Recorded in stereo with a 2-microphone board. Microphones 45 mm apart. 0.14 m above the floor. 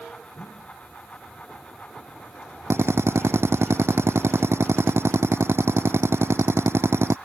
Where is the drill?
65° right (ahead or behind).